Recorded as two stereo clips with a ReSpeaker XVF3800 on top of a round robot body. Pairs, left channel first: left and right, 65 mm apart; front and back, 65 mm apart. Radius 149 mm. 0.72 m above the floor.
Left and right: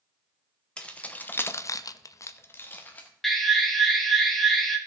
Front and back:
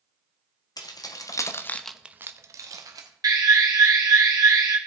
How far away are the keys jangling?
About 1.4 m.